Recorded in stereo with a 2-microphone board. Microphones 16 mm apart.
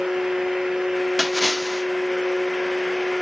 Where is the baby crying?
No baby crying in this recording.